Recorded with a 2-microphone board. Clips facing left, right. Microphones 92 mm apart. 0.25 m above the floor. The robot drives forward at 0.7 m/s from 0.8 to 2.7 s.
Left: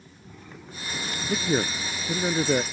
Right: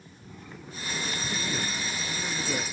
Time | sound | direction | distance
1.3 | a man speaking | 65° left (ahead or behind) | ?